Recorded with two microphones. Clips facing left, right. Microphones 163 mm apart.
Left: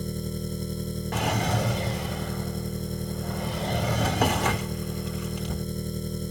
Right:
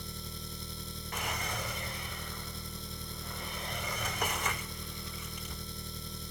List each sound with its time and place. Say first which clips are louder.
0.0 s an engine running: left 14 dB; 50° left (ahead or behind)
1.1 s a drawer: left 12 dB; 85° left